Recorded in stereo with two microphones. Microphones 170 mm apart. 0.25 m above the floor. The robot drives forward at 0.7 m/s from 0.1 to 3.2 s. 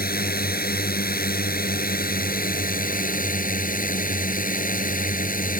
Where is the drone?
75° left (ahead or behind); by 5.6 s 60° left (ahead or behind).